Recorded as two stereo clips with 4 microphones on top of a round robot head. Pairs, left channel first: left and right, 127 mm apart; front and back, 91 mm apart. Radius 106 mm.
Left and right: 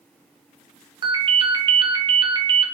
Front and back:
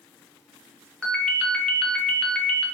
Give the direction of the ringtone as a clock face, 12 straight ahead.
2 o'clock.